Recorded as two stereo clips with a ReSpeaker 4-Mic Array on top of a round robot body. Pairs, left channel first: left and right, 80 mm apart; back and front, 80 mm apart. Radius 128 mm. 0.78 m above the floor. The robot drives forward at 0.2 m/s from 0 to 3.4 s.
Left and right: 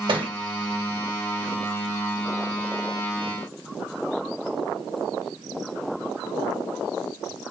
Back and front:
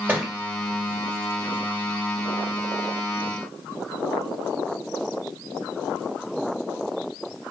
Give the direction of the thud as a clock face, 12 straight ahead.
2 o'clock.